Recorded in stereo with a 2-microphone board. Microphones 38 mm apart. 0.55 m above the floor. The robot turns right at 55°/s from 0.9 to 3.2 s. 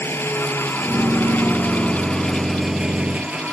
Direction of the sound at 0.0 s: 90° left.